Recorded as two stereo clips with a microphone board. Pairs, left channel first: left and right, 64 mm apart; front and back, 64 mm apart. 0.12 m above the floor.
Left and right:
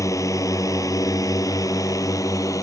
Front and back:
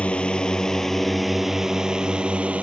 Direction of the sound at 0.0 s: 70° left.